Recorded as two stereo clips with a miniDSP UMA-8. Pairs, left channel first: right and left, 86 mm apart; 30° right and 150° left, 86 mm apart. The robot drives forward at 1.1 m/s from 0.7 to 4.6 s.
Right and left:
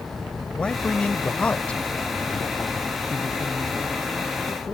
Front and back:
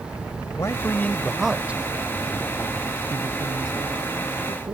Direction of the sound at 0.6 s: 20° right.